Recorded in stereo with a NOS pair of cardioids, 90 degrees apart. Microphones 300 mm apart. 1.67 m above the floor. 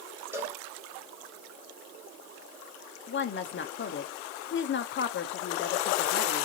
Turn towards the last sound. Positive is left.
turn(degrees=35)